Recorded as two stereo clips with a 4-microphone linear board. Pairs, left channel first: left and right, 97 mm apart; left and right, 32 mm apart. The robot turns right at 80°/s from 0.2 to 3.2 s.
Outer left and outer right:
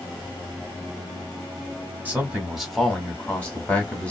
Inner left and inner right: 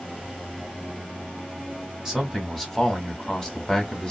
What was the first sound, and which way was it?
A man speaking, 15° right (ahead or behind).